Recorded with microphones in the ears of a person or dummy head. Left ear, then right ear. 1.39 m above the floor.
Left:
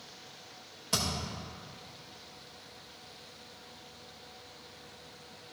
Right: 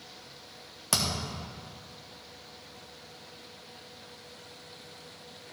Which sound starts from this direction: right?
A thud, at 0.9 s.